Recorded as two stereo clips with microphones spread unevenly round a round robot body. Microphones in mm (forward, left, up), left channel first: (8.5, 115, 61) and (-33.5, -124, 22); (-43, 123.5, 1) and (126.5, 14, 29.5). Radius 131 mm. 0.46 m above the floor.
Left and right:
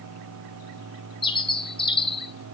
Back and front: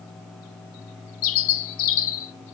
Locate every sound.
1.2 s a bird: 155° left, 1.1 m